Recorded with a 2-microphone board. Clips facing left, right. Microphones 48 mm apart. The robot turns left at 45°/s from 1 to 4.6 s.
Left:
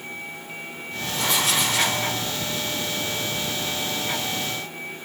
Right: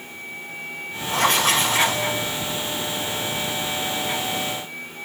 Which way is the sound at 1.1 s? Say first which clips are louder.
Right 5 dB; 120° right.